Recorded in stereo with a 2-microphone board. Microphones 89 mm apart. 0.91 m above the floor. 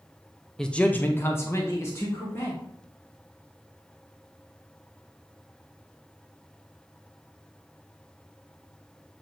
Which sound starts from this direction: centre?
A man speaking, at 0.6 s.